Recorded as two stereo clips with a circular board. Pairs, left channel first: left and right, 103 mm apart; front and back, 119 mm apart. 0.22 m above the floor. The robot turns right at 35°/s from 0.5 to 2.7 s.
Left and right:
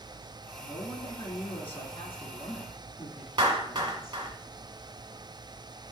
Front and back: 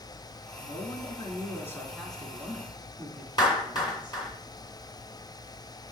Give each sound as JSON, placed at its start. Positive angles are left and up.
{"t": 0.6, "sound": "a woman speaking", "azimuth_deg": 30, "distance_m": 2.5}
{"t": 3.4, "sound": "a clap", "azimuth_deg": -45, "distance_m": 2.0}